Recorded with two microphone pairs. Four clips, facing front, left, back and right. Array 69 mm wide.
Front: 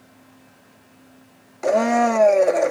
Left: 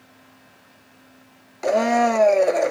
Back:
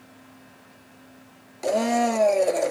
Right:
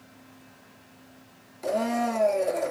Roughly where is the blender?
Ahead left.